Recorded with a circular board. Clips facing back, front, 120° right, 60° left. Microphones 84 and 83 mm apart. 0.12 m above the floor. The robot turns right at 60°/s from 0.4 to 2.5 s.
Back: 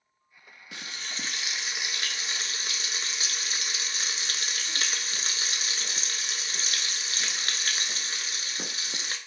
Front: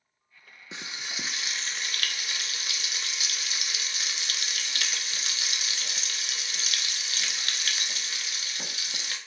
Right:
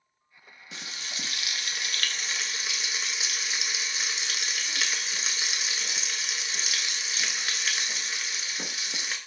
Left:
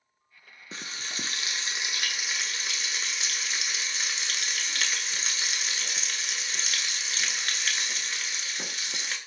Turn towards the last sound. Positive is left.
turn(degrees=155)